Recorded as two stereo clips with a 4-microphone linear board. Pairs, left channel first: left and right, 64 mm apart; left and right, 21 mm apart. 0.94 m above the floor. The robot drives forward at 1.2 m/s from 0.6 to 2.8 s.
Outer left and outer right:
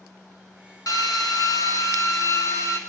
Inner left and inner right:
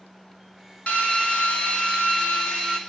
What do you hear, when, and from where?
0.9 s a drill: 70° left (ahead or behind), 2.5 m; by 2.8 s 45° left (ahead or behind), 3 m